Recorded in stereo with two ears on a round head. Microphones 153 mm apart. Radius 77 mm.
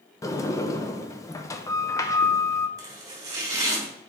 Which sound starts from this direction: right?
Chopping, at 2.8 s.